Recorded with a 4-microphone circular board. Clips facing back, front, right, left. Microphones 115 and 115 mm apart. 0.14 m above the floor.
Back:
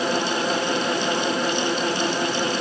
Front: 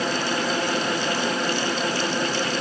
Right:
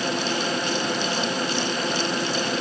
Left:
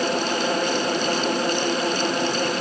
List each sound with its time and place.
Only background noise.